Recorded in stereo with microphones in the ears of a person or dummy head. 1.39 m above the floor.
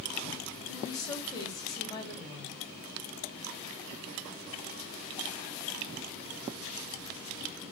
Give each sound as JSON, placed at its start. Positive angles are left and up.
{"t": 0.7, "sound": "a woman speaking", "side_deg": 15, "distance_m": 3.0}